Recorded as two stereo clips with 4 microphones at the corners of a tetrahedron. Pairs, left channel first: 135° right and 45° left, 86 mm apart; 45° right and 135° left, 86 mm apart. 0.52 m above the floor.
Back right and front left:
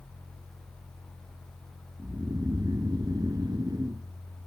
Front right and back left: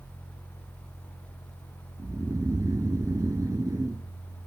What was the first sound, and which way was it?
Snoring, 85° left.